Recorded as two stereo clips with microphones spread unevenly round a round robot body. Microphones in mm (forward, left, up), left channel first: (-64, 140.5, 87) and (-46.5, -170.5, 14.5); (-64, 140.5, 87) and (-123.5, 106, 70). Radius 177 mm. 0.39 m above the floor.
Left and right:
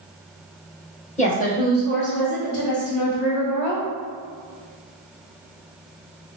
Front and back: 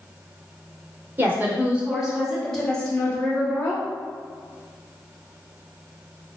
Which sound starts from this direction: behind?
A woman speaking, at 1.2 s.